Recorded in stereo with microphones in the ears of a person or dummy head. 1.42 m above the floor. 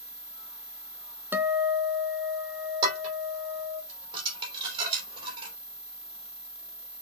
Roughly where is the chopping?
I don't hear chopping.